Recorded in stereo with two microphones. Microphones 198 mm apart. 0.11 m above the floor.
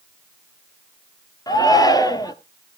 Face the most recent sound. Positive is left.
turn(degrees=20)  # may be behind; listen again after turning